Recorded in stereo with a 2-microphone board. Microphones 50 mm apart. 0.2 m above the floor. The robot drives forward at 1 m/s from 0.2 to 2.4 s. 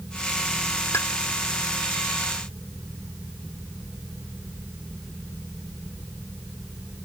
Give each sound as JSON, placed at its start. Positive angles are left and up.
{"t": 0.9, "sound": "a pop", "side_deg": 75}